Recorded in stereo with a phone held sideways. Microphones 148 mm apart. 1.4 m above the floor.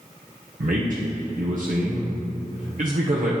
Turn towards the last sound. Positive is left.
turn(degrees=-65)  # may be behind; listen again after turning